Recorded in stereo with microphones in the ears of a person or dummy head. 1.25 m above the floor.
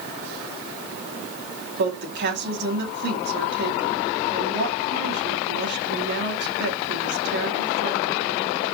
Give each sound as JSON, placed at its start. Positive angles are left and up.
{"t": 1.8, "sound": "a woman speaking", "side_deg": -65, "distance_m": 2.0}